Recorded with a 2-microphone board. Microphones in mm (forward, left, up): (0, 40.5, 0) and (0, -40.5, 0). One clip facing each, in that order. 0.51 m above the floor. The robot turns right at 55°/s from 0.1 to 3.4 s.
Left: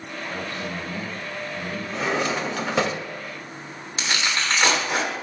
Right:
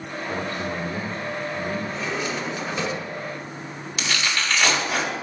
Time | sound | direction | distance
0.3 | a man speaking | 85° right | 1.3 m
1.9 | a drawer | 60° left | 0.5 m
4.0 | tearing paper | 35° left (ahead or behind) | 1.4 m